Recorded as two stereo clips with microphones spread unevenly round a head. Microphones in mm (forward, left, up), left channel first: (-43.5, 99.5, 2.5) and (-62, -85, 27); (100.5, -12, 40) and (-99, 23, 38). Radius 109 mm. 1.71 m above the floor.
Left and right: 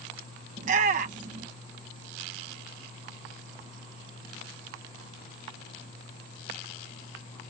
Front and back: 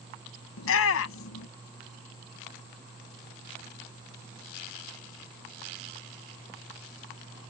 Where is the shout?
35° right.